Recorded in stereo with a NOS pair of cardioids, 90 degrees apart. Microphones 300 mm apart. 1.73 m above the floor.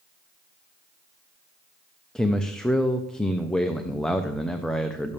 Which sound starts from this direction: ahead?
A man speaking, at 2.1 s.